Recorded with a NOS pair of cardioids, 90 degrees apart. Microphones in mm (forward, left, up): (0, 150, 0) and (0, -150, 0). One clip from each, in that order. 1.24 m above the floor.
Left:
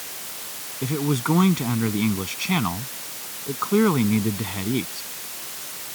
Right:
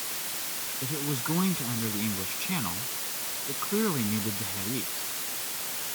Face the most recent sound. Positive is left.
turn(degrees=70)